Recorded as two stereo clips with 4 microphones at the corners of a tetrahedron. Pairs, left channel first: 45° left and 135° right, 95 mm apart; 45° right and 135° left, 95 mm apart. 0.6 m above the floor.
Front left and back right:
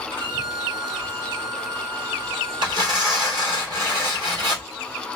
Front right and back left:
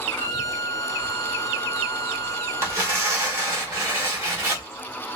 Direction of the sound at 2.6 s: 170° right.